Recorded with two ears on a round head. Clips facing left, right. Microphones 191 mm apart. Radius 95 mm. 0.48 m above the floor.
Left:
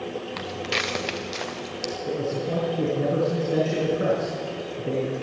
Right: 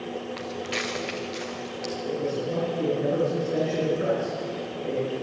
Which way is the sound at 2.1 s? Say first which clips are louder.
Left 1 dB; 60° left (ahead or behind).